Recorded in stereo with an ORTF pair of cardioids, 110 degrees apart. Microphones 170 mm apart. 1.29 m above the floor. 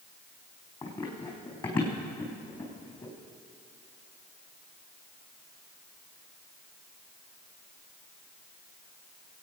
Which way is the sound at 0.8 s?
30° left.